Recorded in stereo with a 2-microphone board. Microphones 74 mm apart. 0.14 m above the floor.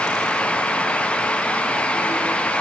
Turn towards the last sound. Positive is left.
No sound to turn to.